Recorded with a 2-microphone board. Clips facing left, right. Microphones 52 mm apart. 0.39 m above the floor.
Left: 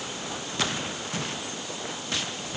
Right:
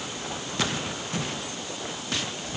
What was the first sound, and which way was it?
Only background noise.